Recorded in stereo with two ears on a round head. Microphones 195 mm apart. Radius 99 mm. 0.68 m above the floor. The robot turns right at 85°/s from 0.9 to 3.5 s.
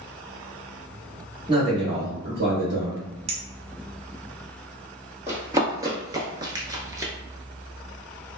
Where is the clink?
30° right (ahead or behind), 0.5 m; by 3.4 s 35° right (ahead or behind), 0.5 m.